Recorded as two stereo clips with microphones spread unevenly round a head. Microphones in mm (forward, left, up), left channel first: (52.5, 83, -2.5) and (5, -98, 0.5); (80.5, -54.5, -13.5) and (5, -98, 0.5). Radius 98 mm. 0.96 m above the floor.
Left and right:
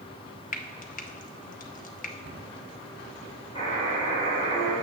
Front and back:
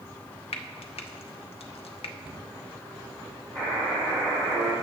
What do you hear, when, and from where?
0.5 s frying: 25° left, 0.6 m
2.2 s a cupboard door: 120° right, 1.6 m
3.5 s a buzzer: 140° left, 3 m